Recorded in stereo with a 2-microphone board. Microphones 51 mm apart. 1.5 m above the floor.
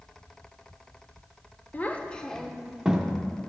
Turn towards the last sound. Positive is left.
turn(degrees=-15)  # may be behind; listen again after turning